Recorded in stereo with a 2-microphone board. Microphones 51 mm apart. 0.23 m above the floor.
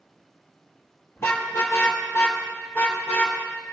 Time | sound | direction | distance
1.2 | a car horn | 55° left (ahead or behind) | 3 m